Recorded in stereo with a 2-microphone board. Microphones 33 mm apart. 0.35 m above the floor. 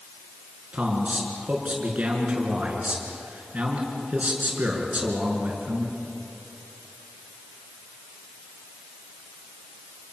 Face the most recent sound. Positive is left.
turn(degrees=-45)  # may be behind; listen again after turning